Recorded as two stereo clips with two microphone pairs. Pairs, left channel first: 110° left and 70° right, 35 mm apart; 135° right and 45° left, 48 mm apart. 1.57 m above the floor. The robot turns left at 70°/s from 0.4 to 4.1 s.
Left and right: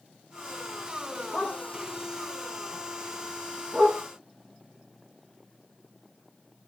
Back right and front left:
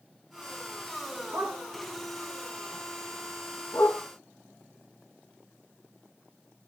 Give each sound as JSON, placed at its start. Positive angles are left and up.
{"t": 1.3, "sound": "a dog barking", "azimuth_deg": 55, "distance_m": 4.5}